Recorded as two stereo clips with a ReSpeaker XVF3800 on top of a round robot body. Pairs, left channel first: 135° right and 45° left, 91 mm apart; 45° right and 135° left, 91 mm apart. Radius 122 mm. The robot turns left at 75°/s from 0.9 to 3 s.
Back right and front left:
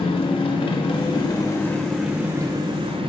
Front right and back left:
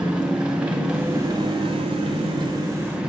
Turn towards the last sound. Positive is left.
turn(degrees=55)